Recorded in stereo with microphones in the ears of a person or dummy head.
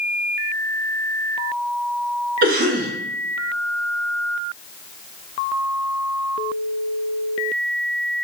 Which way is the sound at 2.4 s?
55° right (ahead or behind).